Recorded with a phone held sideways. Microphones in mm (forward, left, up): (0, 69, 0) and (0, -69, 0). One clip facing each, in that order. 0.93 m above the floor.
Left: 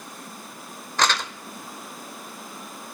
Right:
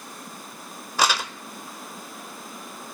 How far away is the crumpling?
About 0.7 m.